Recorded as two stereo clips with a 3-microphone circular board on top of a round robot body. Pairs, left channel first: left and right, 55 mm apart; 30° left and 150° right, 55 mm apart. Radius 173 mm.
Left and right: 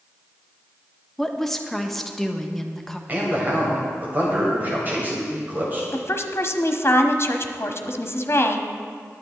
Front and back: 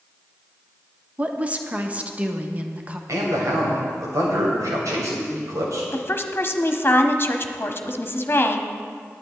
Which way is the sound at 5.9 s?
70° left.